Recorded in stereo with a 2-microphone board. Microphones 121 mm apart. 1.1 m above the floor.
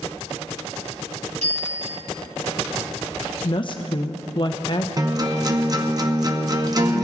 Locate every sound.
1.4 s a bicycle bell: 75° right (ahead or behind), 6 m
3.4 s a woman speaking: 45° left (ahead or behind), 0.7 m
5.0 s a guitar: 35° right (ahead or behind), 0.9 m